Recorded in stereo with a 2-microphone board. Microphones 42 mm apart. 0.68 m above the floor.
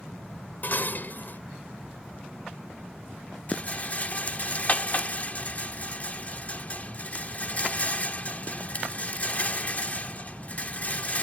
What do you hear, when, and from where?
0.6 s dishes clattering: 50° left (ahead or behind)
3.5 s a rattle: 35° left (ahead or behind)